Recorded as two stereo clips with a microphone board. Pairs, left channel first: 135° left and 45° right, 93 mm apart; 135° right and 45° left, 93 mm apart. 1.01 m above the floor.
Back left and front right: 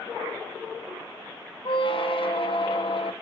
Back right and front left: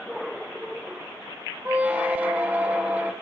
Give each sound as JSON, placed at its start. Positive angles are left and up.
{"t": 1.6, "sound": "a squeak", "azimuth_deg": 120, "distance_m": 0.7}